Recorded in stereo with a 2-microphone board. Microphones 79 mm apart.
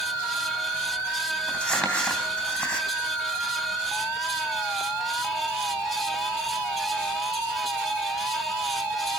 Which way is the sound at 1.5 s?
15° left (ahead or behind).